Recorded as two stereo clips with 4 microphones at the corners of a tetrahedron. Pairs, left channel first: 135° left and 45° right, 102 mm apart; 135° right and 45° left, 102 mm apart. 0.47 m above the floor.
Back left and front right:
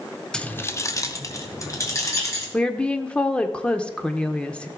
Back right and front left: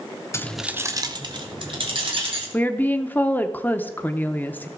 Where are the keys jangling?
150° right, 0.7 m; by 2.4 s 75° left, 3 m.